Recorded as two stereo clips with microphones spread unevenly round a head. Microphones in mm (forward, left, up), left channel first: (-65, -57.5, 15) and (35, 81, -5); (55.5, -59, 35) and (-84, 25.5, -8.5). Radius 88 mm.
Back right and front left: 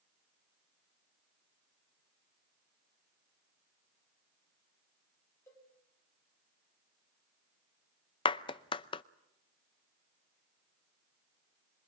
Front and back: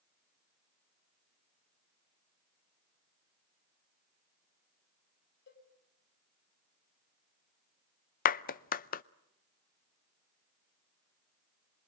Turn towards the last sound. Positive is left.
turn(degrees=-65)